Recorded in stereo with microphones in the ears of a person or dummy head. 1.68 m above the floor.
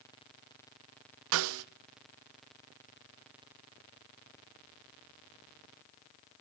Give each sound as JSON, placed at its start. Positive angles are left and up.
{"t": 1.3, "sound": "a snare drum", "side_deg": -80, "distance_m": 0.6}